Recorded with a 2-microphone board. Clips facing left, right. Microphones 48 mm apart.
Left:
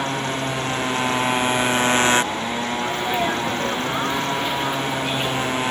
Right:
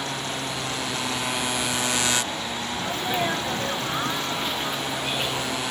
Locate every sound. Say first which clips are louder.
0.0 s a motorcycle: left 6 dB; 35° left (ahead or behind)
2.8 s a sneeze: left 2 dB; 10° left (ahead or behind)